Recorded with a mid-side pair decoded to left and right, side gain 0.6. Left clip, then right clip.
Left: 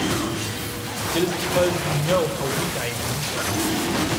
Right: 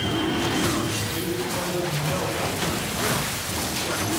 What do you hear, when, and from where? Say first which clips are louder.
1.1 s a man speaking: left 6 dB; 55° left, 5 m